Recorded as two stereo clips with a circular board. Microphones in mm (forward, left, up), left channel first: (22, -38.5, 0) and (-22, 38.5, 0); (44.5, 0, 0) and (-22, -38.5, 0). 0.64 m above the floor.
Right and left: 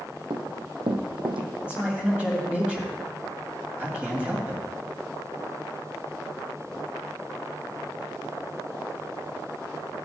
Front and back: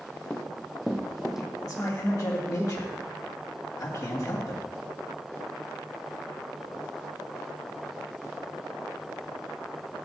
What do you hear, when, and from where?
0.3 s running footsteps: 110° left, 1.5 m; by 1.5 s 125° left, 1.8 m
1.6 s a man speaking: 50° left, 1.8 m